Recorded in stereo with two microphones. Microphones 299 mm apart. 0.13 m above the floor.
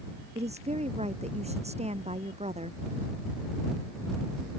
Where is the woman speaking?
20° right (ahead or behind).